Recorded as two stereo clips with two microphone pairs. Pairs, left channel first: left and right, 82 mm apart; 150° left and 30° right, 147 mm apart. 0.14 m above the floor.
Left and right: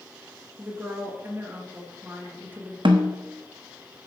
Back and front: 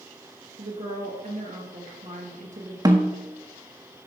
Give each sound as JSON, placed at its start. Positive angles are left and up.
{"t": 0.6, "sound": "a woman speaking", "azimuth_deg": -35, "distance_m": 2.5}
{"t": 2.9, "sound": "a snare drum", "azimuth_deg": -95, "distance_m": 1.3}